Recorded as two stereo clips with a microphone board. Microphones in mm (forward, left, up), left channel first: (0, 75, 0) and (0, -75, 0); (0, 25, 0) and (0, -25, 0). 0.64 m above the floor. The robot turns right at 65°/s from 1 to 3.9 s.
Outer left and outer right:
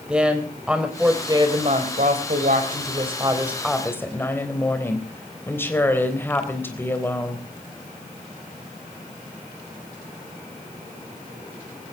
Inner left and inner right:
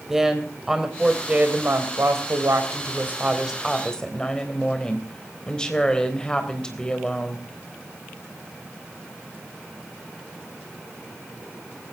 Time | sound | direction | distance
0.1 | a woman speaking | 175° right | 3.5 m